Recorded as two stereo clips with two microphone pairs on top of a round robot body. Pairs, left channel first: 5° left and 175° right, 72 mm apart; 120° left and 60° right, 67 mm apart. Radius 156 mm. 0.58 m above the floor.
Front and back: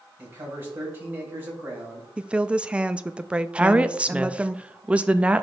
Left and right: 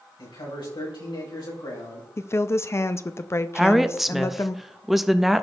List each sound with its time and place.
0.2 s a man speaking: 120° left, 3.5 m
2.2 s a woman speaking: 120° left, 0.6 m
3.5 s a woman speaking: 120° right, 0.8 m